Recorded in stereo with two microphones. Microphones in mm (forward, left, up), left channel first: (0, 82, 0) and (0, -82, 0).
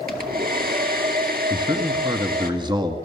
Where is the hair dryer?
65° right (ahead or behind), 2.5 m.